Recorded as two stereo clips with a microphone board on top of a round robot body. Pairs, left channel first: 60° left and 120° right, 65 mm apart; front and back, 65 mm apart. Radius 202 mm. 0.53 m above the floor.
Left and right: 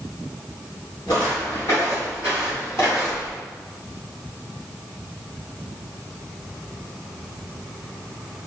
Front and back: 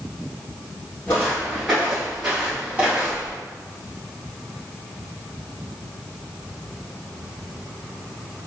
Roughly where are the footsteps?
Ahead left.